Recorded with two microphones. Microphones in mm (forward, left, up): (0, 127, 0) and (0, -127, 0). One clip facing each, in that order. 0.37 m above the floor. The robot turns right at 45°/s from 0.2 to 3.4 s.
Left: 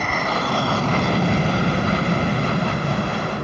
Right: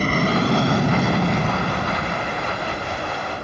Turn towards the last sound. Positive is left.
turn(degrees=70)  # may be behind; listen again after turning